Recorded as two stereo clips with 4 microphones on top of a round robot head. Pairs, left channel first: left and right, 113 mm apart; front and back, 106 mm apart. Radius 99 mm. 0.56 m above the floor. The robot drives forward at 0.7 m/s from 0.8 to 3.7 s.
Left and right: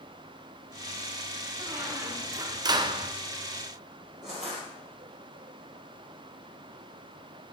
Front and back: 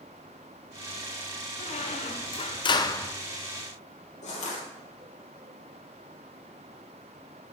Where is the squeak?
15° right, 1.3 m; by 3.1 s 75° right, 0.5 m.